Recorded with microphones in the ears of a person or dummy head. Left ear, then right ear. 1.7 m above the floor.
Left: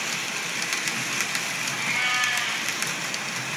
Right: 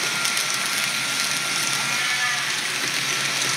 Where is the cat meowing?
15° right (ahead or behind), 2.5 m.